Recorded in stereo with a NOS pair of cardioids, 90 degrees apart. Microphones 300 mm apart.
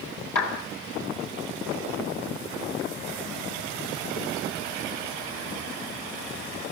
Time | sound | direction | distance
0.3 | a clap | 60° left | 7.5 m